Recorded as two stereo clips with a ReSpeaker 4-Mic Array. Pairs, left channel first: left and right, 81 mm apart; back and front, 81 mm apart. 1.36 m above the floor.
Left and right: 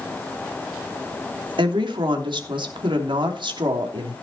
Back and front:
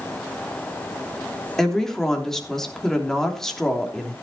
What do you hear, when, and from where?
1.6 s a woman speaking: 95° right, 3 m